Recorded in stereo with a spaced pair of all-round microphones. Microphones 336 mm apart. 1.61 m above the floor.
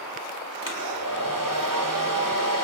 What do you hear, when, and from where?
0.6 s a hair dryer: 70° right (ahead or behind), 4 m